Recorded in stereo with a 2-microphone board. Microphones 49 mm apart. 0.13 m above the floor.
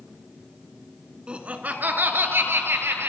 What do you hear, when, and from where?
1.3 s laughter: 20° right (ahead or behind), 1.3 m; by 3.1 s 60° right (ahead or behind), 2.5 m